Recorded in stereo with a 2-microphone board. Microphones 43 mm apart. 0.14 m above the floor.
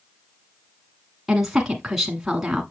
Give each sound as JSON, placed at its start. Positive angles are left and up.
{"t": 1.3, "sound": "a woman speaking", "side_deg": -10, "distance_m": 1.3}